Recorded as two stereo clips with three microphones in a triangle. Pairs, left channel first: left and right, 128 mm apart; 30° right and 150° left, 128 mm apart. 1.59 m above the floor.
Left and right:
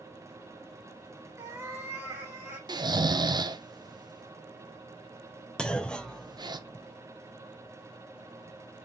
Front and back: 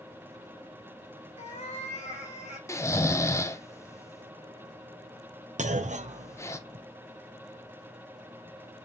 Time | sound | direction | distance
1.4 | a cat meowing | 25° right | 2 m
2.7 | snoring | 80° right | 0.5 m
5.6 | a clunk | 170° left | 0.6 m